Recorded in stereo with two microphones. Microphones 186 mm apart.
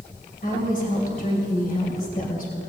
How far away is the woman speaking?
About 2.5 m.